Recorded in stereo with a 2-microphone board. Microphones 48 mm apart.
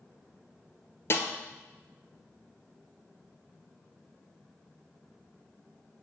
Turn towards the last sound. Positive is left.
turn(degrees=50)  # may be behind; listen again after turning